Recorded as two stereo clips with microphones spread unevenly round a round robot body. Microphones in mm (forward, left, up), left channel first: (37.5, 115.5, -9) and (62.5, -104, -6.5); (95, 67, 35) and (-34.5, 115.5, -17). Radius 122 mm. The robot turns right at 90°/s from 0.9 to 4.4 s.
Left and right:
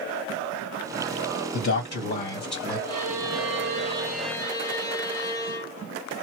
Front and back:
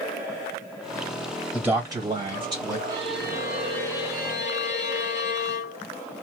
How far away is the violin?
About 1.0 m.